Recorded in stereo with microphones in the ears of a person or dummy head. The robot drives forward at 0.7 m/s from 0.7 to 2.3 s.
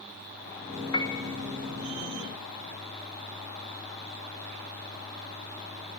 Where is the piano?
25° left (ahead or behind), 1.4 m.